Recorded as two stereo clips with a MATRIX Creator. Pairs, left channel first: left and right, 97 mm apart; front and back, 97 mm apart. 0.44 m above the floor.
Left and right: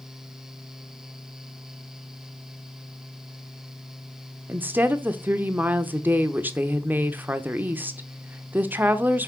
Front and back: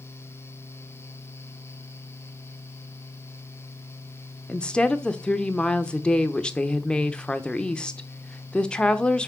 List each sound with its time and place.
4.5 s a woman speaking: 60° right, 0.7 m